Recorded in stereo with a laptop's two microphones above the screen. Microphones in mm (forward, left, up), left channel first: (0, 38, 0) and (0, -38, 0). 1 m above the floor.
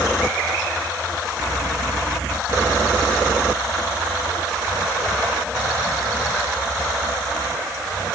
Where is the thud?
No thud in this recording.